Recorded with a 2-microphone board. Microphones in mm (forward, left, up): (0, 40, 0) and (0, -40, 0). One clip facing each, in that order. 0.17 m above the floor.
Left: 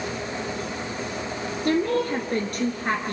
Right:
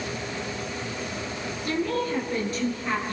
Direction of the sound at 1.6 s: 55° left (ahead or behind).